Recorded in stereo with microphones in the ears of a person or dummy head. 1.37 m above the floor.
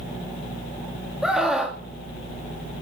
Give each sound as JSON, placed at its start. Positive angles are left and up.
{"t": 1.2, "sound": "a scream", "side_deg": -5, "distance_m": 2.5}